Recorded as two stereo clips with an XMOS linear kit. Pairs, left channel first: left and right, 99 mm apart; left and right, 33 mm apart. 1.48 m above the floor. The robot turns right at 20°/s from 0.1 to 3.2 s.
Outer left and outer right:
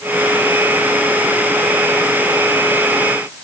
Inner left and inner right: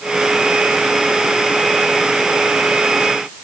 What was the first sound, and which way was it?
Only background noise.